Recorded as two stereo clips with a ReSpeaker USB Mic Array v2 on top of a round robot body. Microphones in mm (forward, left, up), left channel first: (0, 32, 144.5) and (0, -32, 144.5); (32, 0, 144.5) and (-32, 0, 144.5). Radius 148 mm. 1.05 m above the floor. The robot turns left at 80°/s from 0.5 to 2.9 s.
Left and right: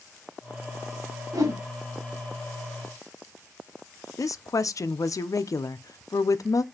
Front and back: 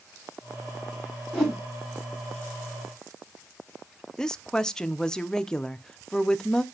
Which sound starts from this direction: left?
A woman speaking, at 4.2 s.